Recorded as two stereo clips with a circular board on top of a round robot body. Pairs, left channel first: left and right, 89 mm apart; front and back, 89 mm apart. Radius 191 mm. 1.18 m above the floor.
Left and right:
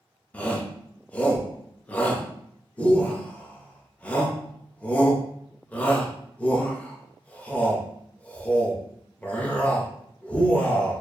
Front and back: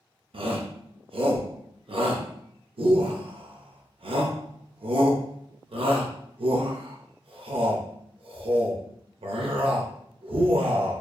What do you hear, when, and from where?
0.3 s a shout: 165° left, 0.7 m